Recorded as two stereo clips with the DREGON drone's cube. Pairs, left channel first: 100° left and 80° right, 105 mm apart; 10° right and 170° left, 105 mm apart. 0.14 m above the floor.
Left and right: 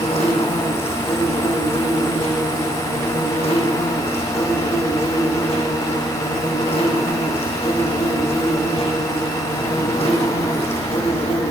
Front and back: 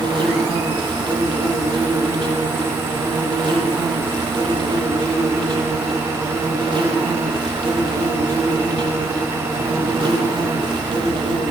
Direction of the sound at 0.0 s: 125° left.